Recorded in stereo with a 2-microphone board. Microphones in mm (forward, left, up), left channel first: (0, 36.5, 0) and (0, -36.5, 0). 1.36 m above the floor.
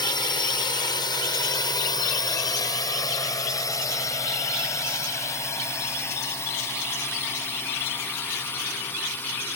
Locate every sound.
0.0 s a drone: 80° left; by 9.6 s 30° left (ahead or behind)